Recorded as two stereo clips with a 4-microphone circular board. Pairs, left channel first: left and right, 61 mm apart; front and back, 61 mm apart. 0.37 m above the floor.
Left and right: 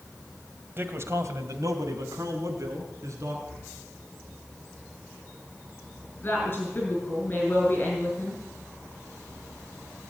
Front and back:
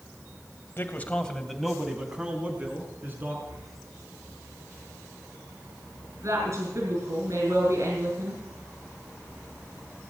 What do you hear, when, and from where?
0.8 s a man speaking: 45° right, 1.8 m; by 3.4 s 125° right, 4.5 m
3.5 s breathing: 160° left, 10 m
6.2 s a woman speaking: 150° left, 4.5 m